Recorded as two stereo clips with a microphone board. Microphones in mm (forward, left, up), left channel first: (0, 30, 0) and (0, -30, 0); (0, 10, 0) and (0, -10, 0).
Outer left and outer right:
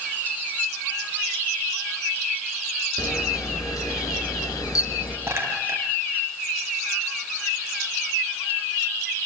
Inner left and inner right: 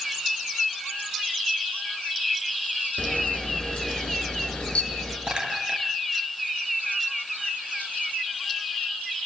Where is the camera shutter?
70° left (ahead or behind), 6 m.